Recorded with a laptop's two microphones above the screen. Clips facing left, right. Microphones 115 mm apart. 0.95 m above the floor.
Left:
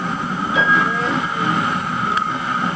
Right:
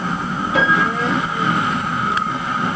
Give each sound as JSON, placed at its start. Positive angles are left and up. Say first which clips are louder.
{"t": 0.6, "sound": "a piano", "louder": "right 1 dB", "side_deg": -75, "distance_m": 3.0}